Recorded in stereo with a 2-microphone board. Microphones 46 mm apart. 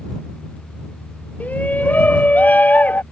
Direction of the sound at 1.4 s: 35° left (ahead or behind).